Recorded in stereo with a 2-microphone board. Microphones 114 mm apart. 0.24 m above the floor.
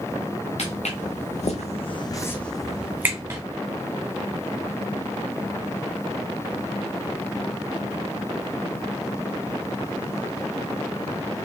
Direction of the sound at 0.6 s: 75° left (ahead or behind).